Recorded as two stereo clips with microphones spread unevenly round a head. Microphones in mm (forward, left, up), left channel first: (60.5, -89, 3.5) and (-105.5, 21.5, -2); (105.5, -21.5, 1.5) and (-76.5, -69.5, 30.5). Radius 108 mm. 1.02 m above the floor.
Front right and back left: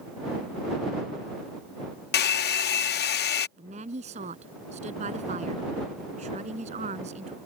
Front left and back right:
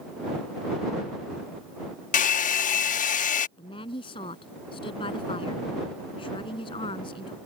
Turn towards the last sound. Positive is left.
turn(degrees=85)